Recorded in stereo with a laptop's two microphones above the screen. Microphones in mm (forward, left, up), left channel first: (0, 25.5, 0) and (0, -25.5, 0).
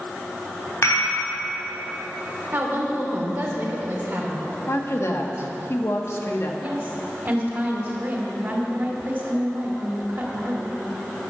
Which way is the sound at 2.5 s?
40° right (ahead or behind).